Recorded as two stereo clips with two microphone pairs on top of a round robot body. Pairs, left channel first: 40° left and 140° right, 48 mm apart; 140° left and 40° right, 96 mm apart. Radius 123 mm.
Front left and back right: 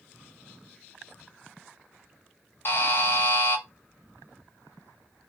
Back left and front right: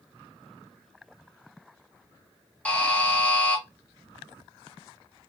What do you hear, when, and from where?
2.6 s a buzzer: 65° left, 0.6 m